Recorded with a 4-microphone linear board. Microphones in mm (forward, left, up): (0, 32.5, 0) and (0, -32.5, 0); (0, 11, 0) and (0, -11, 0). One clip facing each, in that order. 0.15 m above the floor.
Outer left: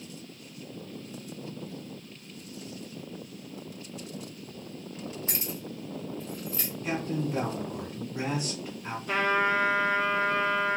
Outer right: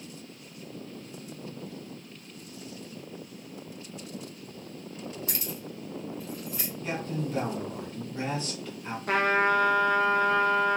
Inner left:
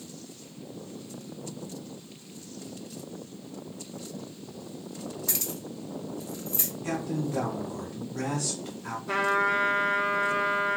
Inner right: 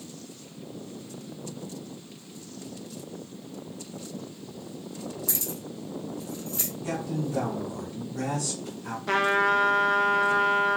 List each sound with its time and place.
5.3 s keys jangling: 30° left (ahead or behind), 0.8 m; by 6.7 s 20° right (ahead or behind), 0.9 m
6.8 s a man speaking: 15° left (ahead or behind), 1.4 m
9.1 s a trumpet: 60° right (ahead or behind), 0.6 m